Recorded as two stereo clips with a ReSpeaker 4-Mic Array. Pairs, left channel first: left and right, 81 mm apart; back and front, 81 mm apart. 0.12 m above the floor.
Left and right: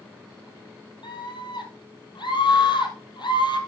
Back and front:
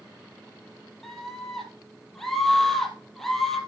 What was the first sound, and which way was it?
A scream, 95° left.